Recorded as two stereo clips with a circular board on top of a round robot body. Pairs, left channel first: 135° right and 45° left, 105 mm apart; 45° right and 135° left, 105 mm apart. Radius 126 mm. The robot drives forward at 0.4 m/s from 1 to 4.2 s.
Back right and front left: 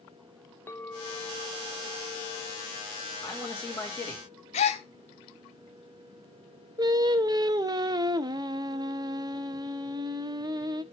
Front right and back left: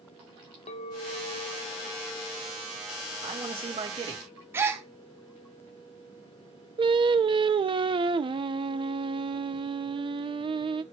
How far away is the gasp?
About 0.6 m.